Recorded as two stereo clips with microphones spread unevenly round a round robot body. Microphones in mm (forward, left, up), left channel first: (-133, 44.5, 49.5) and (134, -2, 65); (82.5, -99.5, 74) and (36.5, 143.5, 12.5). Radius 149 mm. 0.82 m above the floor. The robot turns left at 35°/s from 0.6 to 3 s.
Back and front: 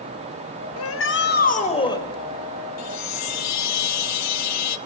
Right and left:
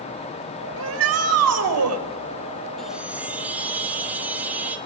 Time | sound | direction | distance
0.8 | a shout | 135° left | 4.5 m
2.8 | a chime | 175° right | 1.3 m